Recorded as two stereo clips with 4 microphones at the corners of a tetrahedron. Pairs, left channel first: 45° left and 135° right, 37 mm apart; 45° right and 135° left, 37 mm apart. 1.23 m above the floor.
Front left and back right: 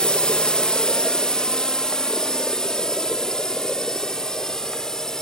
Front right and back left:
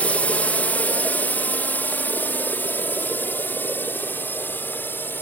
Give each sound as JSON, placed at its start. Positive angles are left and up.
{"t": 0.0, "sound": "a drone", "azimuth_deg": -10}